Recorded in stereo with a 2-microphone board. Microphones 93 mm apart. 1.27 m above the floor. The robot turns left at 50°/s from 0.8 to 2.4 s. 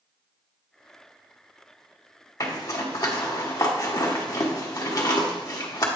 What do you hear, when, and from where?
2.4 s a zipper: 40° left (ahead or behind), 1.1 m